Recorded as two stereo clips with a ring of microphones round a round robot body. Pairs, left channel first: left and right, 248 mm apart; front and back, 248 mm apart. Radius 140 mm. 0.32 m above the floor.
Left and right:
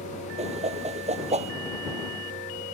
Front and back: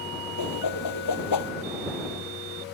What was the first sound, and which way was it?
A whoosh, 25° right.